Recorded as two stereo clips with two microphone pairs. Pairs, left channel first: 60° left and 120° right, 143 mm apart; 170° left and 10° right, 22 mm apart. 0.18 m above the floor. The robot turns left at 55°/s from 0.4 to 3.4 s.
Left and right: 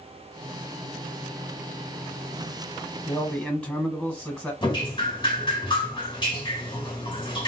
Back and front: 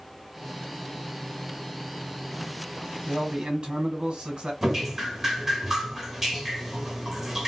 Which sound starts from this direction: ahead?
A man speaking, at 3.1 s.